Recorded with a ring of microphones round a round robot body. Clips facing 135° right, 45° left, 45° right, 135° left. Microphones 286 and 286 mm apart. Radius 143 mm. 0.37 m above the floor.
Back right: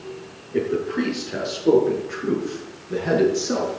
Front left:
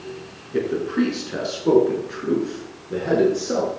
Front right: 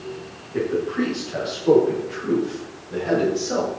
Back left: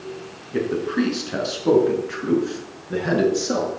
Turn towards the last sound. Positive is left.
turn(degrees=145)